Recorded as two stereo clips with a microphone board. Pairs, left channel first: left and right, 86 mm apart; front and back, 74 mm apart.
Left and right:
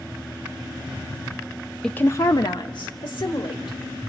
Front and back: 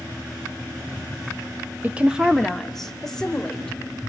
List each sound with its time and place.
1.8 s a woman speaking: 160° left, 0.5 m; by 3.8 s 80° left, 2 m